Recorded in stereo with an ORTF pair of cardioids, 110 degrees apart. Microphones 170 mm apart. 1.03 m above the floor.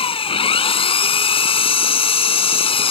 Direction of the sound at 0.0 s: 30° left.